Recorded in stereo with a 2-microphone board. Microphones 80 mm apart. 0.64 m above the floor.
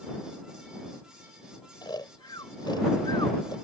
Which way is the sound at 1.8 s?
70° left (ahead or behind).